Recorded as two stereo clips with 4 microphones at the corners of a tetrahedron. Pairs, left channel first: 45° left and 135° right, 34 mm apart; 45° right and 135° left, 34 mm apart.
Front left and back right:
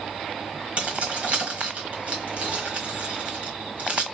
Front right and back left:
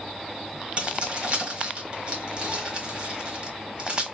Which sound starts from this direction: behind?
Keys jangling, at 0.8 s.